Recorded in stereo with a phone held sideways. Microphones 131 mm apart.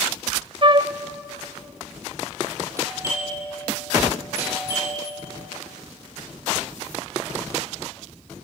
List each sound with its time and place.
0.6 s a flute: 40° right (ahead or behind), 0.5 m
2.8 s a doorbell: 20° right (ahead or behind), 7.5 m